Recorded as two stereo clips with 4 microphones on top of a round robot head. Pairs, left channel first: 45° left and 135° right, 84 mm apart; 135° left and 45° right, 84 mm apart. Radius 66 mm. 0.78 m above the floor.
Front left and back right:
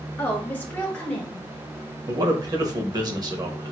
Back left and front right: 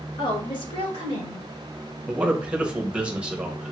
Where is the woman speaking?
115° left, 1.9 m; by 1.5 s 130° left, 3 m.